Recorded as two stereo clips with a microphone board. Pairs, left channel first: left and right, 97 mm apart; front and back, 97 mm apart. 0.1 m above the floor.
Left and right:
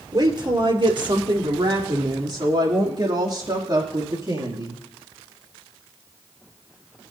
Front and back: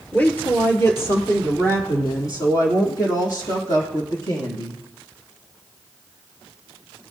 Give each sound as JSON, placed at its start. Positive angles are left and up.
{"t": 0.1, "sound": "a woman speaking", "azimuth_deg": -70, "distance_m": 2.0}